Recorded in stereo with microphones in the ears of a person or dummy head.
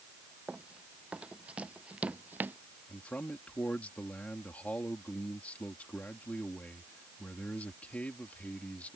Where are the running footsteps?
5° right (ahead or behind); by 2.6 s 10° right (ahead or behind).